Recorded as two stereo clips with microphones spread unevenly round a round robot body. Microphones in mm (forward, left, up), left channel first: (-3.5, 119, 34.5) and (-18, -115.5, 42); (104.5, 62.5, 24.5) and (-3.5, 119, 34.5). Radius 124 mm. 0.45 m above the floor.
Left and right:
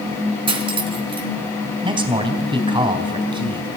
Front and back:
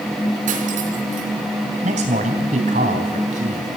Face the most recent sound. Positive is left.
turn(degrees=-165)